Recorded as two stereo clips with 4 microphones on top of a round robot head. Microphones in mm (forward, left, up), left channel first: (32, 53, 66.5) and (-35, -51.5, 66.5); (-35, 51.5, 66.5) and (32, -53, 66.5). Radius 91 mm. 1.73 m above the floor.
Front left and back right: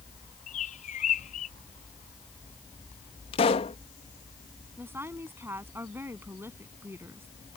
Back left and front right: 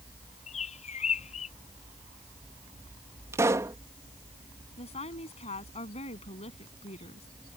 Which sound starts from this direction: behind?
A woman speaking, at 4.8 s.